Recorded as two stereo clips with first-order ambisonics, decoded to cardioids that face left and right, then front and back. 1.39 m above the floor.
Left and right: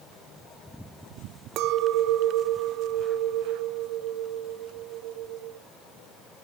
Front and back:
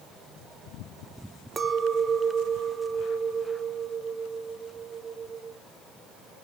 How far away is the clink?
About 0.5 m.